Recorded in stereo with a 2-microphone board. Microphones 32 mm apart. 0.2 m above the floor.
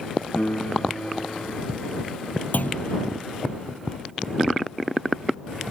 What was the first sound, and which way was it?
A piano, 75° left (ahead or behind).